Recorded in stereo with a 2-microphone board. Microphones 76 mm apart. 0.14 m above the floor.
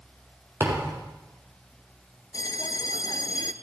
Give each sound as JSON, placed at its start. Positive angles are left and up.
{"t": 0.6, "sound": "a thud", "side_deg": -30, "distance_m": 5.5}
{"t": 2.3, "sound": "a bell", "side_deg": 65, "distance_m": 0.7}